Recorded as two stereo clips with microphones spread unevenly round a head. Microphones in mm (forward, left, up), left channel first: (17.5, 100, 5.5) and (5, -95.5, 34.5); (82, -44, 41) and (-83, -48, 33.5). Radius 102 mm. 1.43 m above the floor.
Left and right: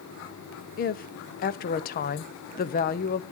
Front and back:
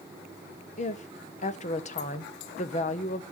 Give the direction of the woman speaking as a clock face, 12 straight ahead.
10 o'clock.